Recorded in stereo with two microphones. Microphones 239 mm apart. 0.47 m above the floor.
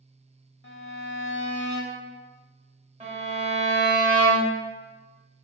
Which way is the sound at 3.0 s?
30° right (ahead or behind).